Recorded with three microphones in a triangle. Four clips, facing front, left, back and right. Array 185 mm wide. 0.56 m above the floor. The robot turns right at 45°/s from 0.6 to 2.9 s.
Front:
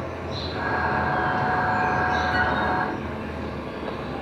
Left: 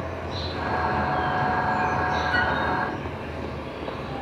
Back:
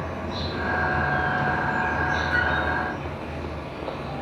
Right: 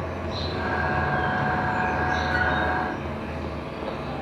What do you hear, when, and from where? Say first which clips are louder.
0.0 s an insect: right 1 dB, even; 140° right, 7.5 m; by 4.2 s 40° right, 7.5 m
2.3 s a flute: even, front 1 dB; 85° left, 1.0 m; by 2.5 s 95° left, 1.0 m